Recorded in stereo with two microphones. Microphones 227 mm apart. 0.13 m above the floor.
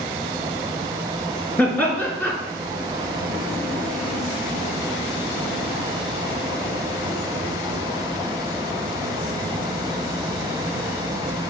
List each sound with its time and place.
1.6 s laughter: 10° left (ahead or behind), 2 m